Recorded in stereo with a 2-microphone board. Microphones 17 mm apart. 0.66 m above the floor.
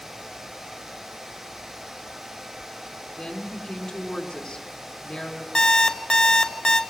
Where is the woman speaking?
80° left, 5.5 m.